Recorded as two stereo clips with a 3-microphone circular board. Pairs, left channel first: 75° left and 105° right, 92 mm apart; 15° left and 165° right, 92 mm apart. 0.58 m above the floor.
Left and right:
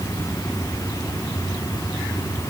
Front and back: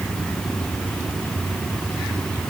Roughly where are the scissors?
I don't hear scissors.